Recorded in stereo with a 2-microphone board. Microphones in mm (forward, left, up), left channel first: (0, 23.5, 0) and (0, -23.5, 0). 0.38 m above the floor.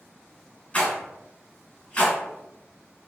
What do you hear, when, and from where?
0.7 s a rattle: 25° left (ahead or behind), 1.5 m